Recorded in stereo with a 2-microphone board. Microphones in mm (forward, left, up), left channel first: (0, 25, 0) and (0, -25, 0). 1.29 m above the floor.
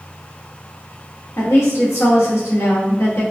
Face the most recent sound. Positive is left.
turn(degrees=70)  # may be behind; listen again after turning